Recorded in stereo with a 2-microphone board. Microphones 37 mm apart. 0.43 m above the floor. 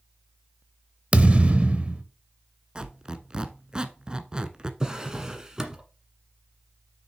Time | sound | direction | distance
1.1 | a thud | 35° right (ahead or behind) | 0.8 m
2.8 | a squeak | 30° right (ahead or behind) | 0.7 m
4.8 | a drawer | 20° right (ahead or behind) | 1.3 m